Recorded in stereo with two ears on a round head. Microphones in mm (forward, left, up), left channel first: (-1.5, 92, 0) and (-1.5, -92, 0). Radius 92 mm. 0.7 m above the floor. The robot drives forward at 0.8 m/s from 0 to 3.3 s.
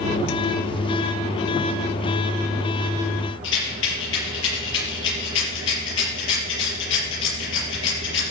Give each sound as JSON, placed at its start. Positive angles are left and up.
{"t": 3.4, "sound": "a rattle", "side_deg": 65, "distance_m": 7.0}